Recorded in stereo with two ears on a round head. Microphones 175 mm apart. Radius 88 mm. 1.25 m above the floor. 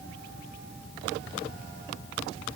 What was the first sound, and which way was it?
Only background noise.